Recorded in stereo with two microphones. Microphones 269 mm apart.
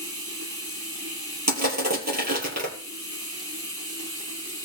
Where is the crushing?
75° right (ahead or behind), 3.5 m.